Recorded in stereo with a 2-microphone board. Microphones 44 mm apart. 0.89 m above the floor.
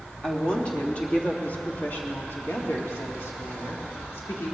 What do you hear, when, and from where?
0.2 s a woman speaking: 20° left (ahead or behind), 1.9 m; by 4.5 s 75° left (ahead or behind), 3 m